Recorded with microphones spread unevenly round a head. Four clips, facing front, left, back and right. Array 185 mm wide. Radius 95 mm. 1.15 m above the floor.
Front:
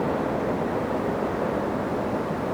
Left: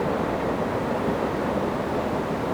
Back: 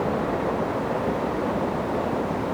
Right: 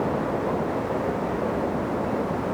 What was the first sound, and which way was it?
Only background noise.